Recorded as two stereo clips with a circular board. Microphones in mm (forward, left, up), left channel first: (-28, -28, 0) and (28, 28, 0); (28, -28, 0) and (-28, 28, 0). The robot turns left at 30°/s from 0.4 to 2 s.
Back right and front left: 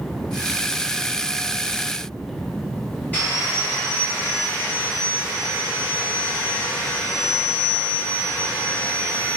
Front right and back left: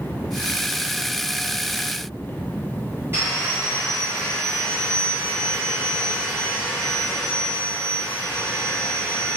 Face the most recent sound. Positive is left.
turn(degrees=165)